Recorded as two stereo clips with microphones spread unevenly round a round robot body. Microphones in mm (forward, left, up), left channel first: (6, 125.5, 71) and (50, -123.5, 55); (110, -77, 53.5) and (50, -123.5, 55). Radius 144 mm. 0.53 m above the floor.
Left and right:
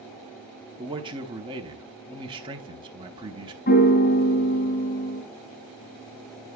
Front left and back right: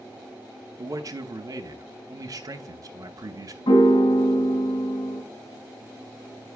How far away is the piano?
About 1.8 m.